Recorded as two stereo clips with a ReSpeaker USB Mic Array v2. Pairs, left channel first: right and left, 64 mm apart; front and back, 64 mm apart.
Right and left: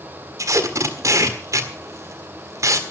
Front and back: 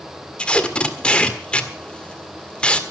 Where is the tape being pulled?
70° left, 1.7 m.